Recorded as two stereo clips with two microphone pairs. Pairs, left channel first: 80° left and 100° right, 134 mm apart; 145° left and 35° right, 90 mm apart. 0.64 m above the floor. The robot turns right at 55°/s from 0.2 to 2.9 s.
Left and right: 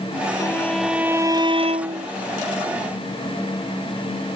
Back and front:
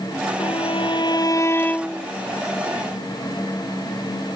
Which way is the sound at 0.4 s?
145° left.